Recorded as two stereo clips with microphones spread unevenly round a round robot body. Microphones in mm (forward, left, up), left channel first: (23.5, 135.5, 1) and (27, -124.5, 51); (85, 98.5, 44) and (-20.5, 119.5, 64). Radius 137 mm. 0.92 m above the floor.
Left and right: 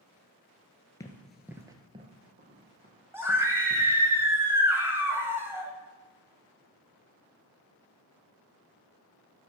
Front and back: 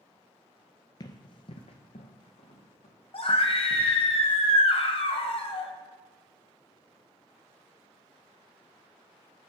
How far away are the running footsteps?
About 0.9 m.